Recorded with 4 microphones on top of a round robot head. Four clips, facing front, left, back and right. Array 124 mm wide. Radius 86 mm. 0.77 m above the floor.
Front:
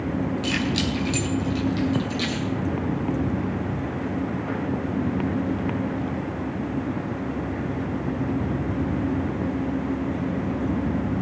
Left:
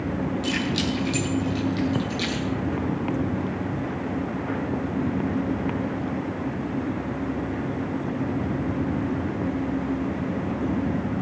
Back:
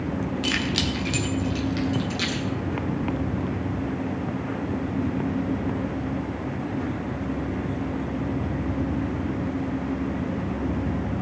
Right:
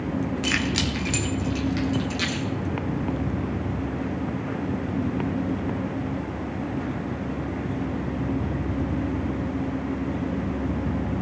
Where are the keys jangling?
125° right, 1.3 m; by 2.5 s 135° right, 3 m.